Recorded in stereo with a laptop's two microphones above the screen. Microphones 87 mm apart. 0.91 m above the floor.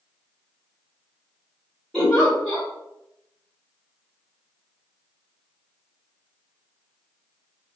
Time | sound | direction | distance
1.9 | a giggle | 5° left (ahead or behind) | 1.6 m